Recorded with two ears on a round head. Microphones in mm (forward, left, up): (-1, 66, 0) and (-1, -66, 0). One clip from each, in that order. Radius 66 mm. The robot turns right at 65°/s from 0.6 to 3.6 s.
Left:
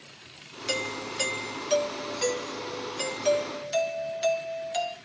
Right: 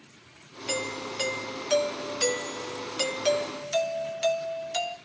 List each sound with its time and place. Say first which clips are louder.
0.7 s a doorbell: left 1 dB; 145° left, 1.3 m; by 5.0 s 25° right, 1.3 m